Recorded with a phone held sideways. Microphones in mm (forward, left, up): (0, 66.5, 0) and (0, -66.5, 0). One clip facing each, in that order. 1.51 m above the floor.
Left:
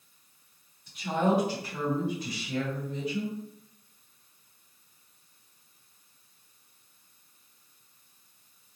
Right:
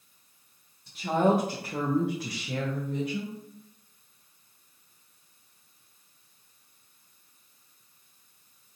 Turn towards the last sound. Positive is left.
turn(degrees=-45)  # may be behind; listen again after turning